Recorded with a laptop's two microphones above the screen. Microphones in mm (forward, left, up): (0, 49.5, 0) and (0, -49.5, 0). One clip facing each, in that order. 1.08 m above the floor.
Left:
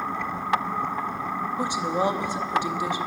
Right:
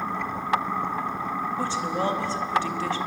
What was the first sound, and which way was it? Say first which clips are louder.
A woman speaking: left 3 dB; 15° left (ahead or behind).